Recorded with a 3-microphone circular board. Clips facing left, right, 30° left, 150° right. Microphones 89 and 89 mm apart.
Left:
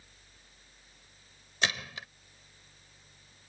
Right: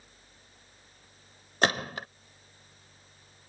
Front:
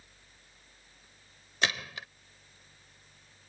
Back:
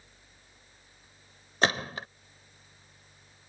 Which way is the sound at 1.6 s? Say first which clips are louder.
Right 6 dB, back 5 dB; 110° right.